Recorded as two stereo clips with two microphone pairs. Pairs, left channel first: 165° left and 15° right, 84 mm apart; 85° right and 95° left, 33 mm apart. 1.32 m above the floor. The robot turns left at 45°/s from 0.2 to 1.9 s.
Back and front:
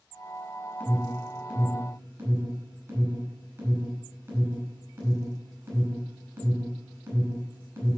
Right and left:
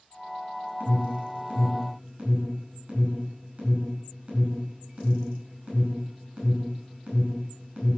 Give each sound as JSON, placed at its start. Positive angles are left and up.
{"t": 0.8, "sound": "an alarm", "azimuth_deg": 95, "distance_m": 5.0}